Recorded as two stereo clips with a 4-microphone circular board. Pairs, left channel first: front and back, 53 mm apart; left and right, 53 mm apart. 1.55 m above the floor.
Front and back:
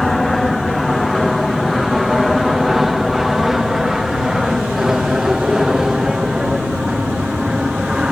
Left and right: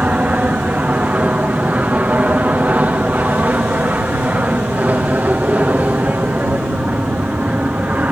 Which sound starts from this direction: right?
An aircraft, at 0.0 s.